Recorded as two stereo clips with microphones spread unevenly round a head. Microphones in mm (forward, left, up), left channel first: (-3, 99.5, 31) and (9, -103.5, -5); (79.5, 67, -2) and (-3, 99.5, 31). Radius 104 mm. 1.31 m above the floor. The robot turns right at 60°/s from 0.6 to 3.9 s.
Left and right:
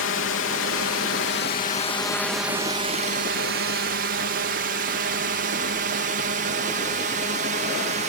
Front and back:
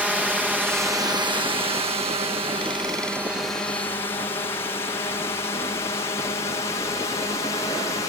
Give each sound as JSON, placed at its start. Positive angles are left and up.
{"t": 0.0, "sound": "a drone", "azimuth_deg": 75}